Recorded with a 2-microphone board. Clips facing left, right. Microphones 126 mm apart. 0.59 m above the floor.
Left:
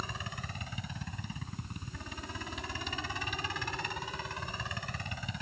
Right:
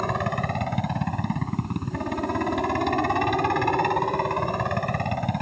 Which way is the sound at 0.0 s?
60° right (ahead or behind).